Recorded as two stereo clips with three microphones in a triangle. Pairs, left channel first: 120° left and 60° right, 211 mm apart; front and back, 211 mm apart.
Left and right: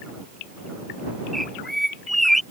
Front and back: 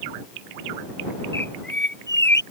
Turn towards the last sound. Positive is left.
turn(degrees=30)